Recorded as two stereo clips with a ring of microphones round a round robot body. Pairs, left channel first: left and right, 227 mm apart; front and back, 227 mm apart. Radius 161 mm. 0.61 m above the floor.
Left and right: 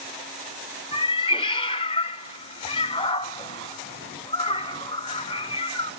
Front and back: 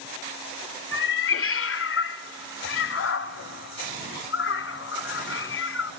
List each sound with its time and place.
0.9 s a cat meowing: 20° left, 1.2 m